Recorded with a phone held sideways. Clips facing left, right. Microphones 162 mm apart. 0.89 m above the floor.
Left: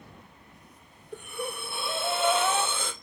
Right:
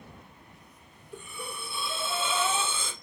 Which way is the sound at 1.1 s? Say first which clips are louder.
Left 6 dB; 55° left (ahead or behind).